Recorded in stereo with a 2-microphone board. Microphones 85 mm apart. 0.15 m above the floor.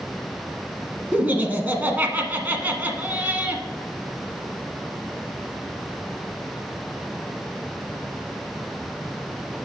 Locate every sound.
1.1 s laughter: 20° right (ahead or behind), 1.1 m